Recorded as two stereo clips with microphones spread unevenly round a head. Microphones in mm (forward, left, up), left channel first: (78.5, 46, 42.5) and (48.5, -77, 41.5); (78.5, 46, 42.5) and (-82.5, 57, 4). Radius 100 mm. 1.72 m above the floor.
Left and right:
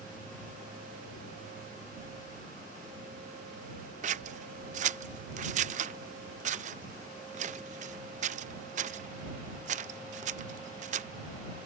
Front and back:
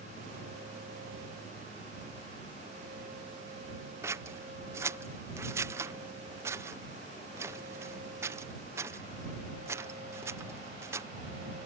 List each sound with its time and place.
4.0 s scissors: 100° right